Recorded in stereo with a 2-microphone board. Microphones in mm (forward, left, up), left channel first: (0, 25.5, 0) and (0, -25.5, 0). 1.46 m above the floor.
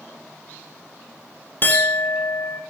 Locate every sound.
1.6 s a clink: 40° left (ahead or behind), 0.6 m